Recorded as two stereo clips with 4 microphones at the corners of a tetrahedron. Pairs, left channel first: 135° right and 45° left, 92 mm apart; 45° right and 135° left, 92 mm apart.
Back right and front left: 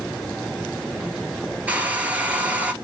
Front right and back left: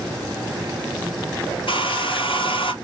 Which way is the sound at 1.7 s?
30° right.